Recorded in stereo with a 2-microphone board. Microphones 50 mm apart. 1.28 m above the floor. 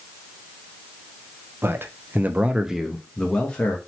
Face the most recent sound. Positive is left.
turn(degrees=25)  # may be behind; listen again after turning